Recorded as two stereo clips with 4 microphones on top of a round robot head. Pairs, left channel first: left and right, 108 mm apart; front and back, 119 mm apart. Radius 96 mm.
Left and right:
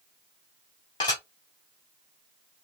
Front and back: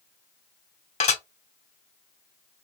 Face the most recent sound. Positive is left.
turn(degrees=30)